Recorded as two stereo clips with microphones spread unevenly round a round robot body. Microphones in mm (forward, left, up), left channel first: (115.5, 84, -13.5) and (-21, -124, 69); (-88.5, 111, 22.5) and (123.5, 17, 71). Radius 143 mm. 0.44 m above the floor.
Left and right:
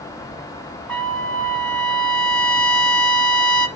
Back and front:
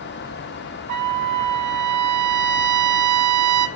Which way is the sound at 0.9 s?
35° right.